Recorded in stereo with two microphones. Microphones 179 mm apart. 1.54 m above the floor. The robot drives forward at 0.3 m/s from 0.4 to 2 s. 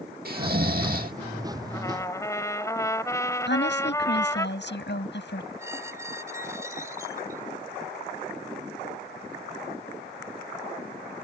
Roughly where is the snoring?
Right.